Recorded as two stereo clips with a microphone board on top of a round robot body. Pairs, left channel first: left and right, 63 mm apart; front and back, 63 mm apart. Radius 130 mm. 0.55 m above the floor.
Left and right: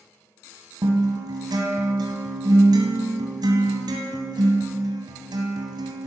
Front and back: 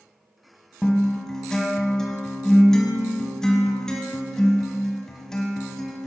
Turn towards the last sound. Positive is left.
turn(degrees=-80)